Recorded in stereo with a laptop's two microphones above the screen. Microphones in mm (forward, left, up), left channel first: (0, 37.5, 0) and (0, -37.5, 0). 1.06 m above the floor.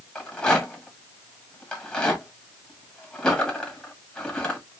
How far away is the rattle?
About 1.9 m.